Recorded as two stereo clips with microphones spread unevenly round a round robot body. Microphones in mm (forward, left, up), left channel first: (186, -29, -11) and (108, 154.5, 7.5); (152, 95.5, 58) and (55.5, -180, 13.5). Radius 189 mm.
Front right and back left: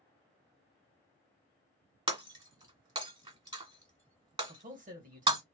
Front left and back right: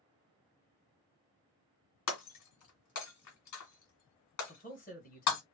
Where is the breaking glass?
50° left, 1.7 m.